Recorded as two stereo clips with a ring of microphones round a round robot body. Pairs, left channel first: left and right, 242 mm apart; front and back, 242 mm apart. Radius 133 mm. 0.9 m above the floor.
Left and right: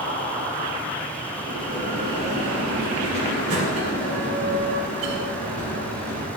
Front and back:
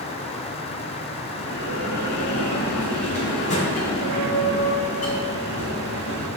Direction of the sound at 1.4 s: 60° right.